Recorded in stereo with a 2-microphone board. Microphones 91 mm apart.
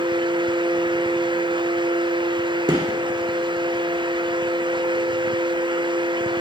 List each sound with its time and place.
2.7 s a gunshot: 50° right (ahead or behind), 1.8 m